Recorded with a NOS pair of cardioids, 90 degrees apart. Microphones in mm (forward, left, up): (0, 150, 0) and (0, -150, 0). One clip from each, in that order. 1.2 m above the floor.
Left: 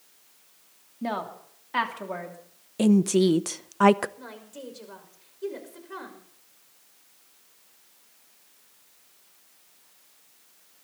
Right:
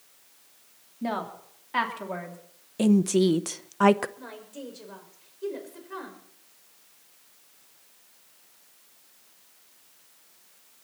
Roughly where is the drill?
I don't hear a drill.